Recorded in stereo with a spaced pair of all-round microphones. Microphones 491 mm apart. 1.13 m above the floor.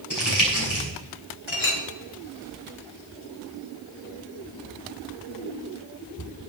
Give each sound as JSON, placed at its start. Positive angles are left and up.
{"t": 0.1, "sound": "crumpling", "side_deg": 35, "distance_m": 7.0}
{"t": 1.5, "sound": "a clink", "side_deg": 70, "distance_m": 2.5}